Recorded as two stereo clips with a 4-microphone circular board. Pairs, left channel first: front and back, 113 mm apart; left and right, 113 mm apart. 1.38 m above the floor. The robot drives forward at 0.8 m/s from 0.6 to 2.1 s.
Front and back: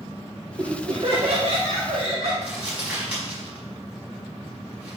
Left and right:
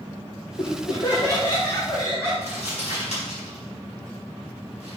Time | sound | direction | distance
0.6 | laughter | 130° left | 1.2 m
2.4 | crumpling | 100° left | 4.5 m